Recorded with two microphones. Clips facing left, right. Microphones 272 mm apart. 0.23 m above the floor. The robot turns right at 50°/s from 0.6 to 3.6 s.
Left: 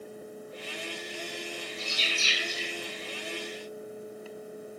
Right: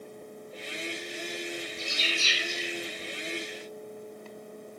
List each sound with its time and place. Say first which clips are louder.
1.8 s a bird: right 1 dB; 45° left (ahead or behind), 7.5 m; by 2.7 s 5° right (ahead or behind), 7.5 m